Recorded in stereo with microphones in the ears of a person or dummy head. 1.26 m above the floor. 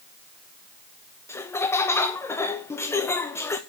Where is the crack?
I don't hear a crack.